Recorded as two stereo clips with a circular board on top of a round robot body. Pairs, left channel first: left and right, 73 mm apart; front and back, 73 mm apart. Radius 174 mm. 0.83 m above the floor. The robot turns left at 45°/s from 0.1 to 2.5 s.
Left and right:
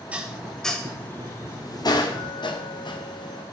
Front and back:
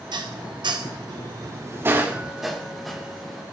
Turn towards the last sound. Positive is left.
turn(degrees=90)